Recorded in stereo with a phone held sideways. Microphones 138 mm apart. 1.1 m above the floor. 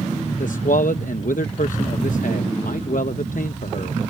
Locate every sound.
0.4 s a man speaking: 80° left